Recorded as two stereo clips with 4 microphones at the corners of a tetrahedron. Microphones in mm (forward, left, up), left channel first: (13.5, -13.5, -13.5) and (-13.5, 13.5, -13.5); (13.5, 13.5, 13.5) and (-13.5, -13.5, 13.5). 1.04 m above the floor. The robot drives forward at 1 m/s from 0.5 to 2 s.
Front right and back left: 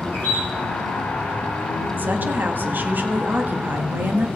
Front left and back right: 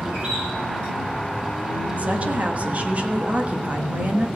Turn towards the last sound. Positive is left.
turn(degrees=170)